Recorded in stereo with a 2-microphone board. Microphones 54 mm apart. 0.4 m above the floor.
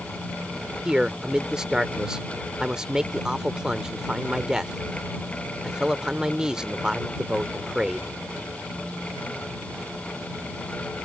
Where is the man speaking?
10° right (ahead or behind).